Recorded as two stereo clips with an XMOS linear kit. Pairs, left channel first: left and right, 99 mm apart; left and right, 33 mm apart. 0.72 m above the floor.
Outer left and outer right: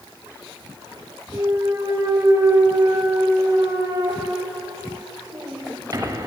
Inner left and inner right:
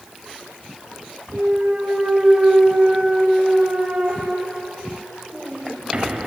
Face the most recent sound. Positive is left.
turn(degrees=-35)  # may be behind; listen again after turning